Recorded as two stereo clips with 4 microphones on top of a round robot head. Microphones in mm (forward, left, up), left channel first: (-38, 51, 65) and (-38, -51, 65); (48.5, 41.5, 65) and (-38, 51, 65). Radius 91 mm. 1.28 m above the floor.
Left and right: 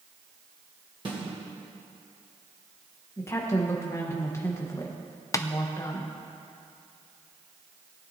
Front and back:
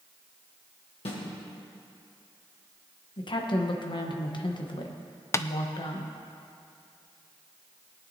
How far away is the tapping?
About 0.5 m.